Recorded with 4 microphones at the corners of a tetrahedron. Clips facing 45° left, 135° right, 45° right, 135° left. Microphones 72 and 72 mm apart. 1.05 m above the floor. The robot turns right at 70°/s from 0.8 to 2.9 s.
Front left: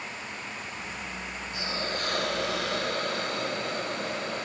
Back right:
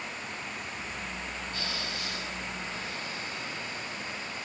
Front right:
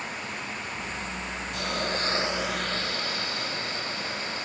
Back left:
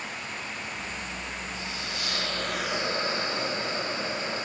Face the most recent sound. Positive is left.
turn(degrees=70)